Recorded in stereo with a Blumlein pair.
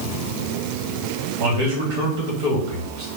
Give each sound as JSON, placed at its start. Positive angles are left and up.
{"t": 1.4, "sound": "a man speaking", "azimuth_deg": -50, "distance_m": 1.9}